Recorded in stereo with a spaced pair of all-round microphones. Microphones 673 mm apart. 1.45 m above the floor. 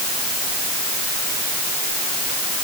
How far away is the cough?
No cough in this recording.